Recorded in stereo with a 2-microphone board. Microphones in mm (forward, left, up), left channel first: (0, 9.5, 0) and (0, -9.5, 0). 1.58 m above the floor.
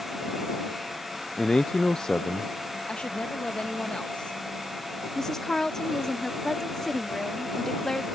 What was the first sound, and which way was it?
A man speaking, 45° left (ahead or behind).